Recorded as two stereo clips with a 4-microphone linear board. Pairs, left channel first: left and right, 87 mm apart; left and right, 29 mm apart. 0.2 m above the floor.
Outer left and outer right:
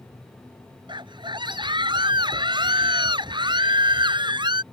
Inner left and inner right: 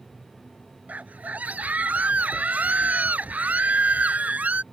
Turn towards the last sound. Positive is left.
turn(degrees=-65)  # may be behind; listen again after turning